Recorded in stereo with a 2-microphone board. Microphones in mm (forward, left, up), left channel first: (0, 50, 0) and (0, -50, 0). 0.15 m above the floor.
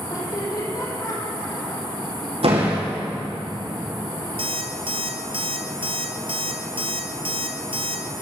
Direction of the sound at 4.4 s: 65° right (ahead or behind).